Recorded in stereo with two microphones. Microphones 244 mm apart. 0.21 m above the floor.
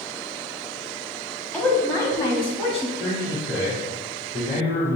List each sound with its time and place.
1.5 s a woman speaking: 10° left (ahead or behind), 1.0 m; by 2.9 s 25° left (ahead or behind), 1.5 m
3.0 s a man speaking: 30° left (ahead or behind), 1.6 m